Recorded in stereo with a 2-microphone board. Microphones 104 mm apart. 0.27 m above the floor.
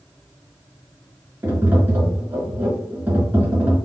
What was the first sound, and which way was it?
Tapping, 20° right (ahead or behind).